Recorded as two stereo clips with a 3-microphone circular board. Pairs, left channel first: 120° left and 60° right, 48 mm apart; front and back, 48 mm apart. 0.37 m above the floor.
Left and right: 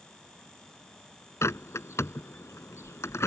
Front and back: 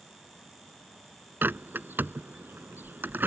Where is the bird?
135° left.